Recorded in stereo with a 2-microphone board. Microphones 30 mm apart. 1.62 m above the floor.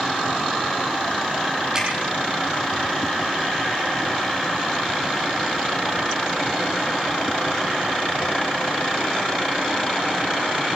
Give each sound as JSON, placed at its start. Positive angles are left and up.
{"t": 1.8, "sound": "dripping", "side_deg": -25, "distance_m": 9.5}